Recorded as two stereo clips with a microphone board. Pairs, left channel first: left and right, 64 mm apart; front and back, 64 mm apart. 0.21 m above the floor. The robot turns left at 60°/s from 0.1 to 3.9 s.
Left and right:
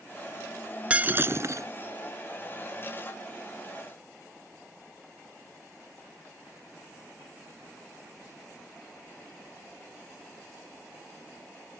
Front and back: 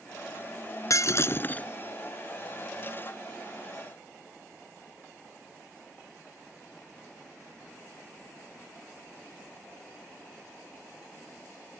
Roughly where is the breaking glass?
Ahead.